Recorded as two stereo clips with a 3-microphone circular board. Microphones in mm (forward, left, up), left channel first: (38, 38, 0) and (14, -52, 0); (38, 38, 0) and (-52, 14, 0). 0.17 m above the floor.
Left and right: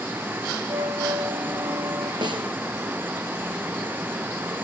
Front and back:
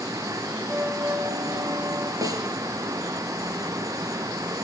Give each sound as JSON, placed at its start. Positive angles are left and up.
{"t": 0.7, "sound": "a flute", "azimuth_deg": -125, "distance_m": 7.0}
{"t": 2.2, "sound": "a snare drum", "azimuth_deg": -125, "distance_m": 2.5}